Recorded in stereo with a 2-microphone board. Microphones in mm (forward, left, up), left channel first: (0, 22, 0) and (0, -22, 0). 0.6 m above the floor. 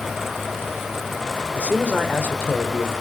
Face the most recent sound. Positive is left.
turn(degrees=40)  # may be behind; listen again after turning